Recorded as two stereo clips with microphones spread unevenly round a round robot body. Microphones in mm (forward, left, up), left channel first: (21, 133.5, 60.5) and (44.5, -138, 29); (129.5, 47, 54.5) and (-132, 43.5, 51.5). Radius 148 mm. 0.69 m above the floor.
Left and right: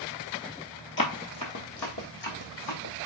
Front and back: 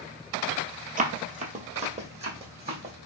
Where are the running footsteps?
125° left, 0.9 m; by 2.9 s 110° left, 2.5 m.